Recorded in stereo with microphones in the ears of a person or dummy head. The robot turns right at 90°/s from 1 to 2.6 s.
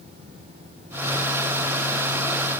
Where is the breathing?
No breathing in this recording.